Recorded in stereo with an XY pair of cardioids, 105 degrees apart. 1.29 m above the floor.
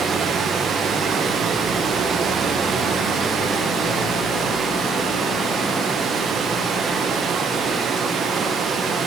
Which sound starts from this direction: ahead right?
Running water, at 0.0 s.